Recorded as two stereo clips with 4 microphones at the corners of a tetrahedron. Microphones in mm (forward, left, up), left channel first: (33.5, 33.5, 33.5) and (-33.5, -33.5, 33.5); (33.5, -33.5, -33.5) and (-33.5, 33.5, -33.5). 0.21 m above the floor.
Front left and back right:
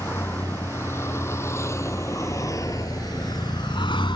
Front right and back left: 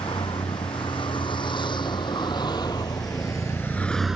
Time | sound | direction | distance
0.0 | a vehicle | 20° right | ?